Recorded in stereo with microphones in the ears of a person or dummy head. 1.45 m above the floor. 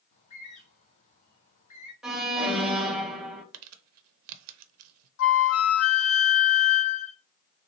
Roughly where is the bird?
Left.